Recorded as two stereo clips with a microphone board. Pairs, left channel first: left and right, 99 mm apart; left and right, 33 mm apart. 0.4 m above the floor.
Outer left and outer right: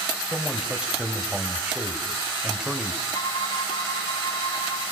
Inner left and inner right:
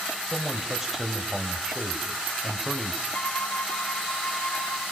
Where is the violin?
55° left (ahead or behind), 3 m.